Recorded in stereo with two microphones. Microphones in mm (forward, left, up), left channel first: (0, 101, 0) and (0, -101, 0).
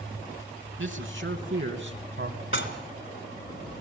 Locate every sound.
0.8 s a man speaking: 75° right (ahead or behind), 4 m; by 2.4 s 65° right (ahead or behind), 2.5 m
2.5 s dishes clattering: 70° left (ahead or behind), 2.5 m